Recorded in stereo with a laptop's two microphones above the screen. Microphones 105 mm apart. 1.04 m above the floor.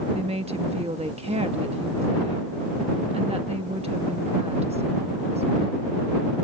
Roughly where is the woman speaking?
Right.